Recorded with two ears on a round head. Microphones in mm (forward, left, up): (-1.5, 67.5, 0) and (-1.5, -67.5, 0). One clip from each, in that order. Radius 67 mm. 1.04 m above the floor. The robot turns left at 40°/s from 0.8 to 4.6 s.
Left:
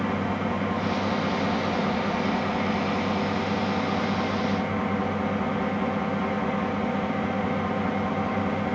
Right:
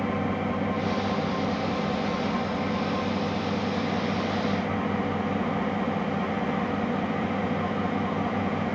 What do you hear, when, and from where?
0.0 s an engine running: 150° left, 1.2 m; by 8.8 s straight ahead, 1.2 m